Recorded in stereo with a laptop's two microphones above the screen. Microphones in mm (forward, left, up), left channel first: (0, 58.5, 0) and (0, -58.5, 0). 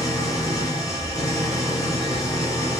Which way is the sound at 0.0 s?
30° left (ahead or behind).